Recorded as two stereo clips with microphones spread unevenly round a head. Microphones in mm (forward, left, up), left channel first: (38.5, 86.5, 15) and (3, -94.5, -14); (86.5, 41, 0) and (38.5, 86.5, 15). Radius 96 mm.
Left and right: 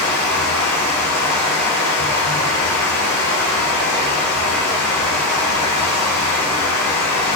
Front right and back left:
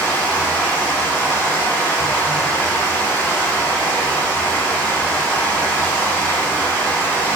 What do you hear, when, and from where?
0.0 s running water: 15° left, 1.2 m